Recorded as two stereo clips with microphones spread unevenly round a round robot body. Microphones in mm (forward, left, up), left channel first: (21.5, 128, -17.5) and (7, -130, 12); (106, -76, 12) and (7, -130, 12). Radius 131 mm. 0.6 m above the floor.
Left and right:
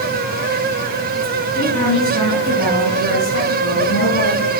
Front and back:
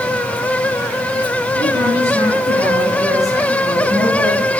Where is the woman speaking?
155° left, 5.5 m; by 4.5 s 140° left, 4 m.